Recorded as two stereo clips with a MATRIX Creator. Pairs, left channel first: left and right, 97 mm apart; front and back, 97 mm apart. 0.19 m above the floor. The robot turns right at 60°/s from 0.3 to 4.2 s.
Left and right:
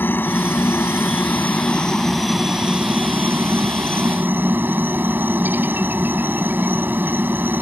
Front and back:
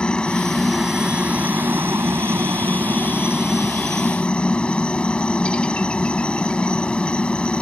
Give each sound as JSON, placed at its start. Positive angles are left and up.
{"t": 0.0, "sound": "a helicopter", "azimuth_deg": 65}